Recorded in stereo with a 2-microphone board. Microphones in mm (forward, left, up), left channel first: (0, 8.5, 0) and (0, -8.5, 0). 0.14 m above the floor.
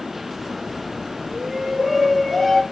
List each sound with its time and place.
1.3 s a shout: 15° right (ahead or behind), 1.9 m; by 2.6 s 5° left (ahead or behind), 2.5 m